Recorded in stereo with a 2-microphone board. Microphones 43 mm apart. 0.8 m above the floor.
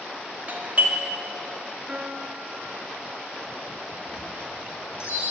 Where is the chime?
85° left, 6 m.